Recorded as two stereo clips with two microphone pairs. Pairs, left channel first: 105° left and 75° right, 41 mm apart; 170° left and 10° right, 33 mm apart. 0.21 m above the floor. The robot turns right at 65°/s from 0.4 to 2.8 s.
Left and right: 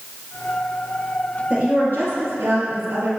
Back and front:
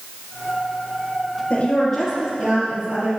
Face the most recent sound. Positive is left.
turn(degrees=-55)